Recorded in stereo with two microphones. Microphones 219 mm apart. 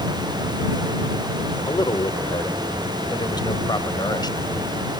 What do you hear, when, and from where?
1.7 s a man speaking: 20° left (ahead or behind)